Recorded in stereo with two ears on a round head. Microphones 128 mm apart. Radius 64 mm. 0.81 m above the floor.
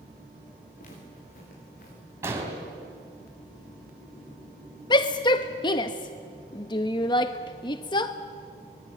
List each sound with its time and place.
0.8 s footsteps: 60° left (ahead or behind), 8 m; by 2.0 s 70° left (ahead or behind), 8 m
2.2 s an explosion: 20° right (ahead or behind), 3.5 m
4.9 s a shout: 30° left (ahead or behind), 0.7 m